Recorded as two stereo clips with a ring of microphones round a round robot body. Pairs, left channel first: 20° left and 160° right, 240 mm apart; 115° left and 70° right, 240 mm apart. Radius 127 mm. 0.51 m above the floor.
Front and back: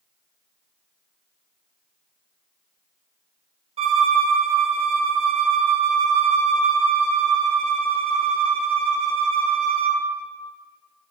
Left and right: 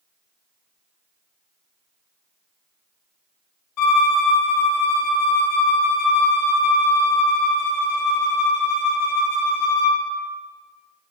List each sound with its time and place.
3.8 s a violin: 135° left, 0.5 m